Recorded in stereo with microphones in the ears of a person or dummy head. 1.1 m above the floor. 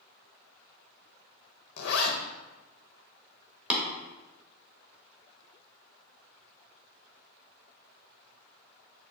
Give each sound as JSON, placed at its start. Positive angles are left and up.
{"t": 1.8, "sound": "a zipper", "side_deg": 70, "distance_m": 0.7}
{"t": 3.7, "sound": "tapping", "side_deg": -5, "distance_m": 1.0}